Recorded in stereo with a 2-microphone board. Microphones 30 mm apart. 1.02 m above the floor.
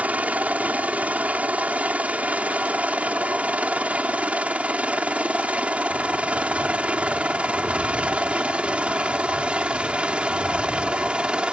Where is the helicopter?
55° right (ahead or behind); by 11.5 s 35° right (ahead or behind).